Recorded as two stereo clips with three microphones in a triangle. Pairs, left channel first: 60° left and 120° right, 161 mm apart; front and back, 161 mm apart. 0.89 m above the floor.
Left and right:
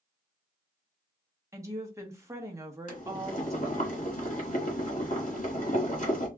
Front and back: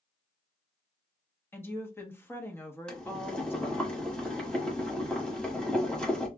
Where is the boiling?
85° left, 1.3 m.